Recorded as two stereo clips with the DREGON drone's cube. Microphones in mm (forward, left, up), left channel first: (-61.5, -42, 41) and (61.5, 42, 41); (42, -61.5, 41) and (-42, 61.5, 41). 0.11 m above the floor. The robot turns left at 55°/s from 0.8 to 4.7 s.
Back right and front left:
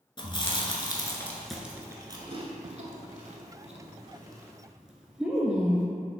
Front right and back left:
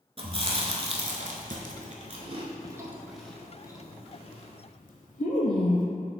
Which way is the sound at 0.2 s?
165° left.